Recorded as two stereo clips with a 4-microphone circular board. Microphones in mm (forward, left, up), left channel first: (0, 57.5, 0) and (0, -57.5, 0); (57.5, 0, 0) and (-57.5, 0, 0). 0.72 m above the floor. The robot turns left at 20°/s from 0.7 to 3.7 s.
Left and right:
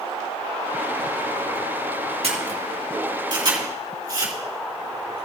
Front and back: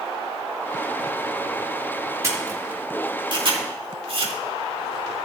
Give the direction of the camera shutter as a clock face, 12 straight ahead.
4 o'clock.